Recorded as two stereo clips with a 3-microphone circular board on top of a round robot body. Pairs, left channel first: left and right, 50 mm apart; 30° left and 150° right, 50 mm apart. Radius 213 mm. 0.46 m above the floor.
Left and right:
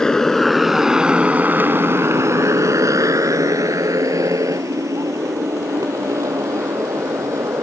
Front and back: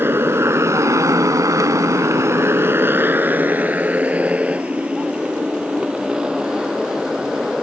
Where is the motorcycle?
165° left; by 7.6 s 70° right.